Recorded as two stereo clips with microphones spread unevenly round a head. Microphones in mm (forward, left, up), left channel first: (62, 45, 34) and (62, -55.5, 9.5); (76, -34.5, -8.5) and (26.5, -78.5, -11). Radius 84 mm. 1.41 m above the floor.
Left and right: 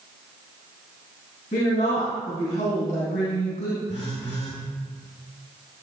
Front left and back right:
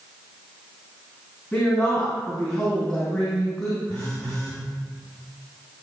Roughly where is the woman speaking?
Behind left.